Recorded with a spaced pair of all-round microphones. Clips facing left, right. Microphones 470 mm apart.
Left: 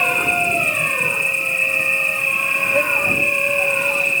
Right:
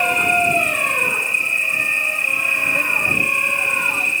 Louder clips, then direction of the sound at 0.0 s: Right 2 dB; 70° left (ahead or behind).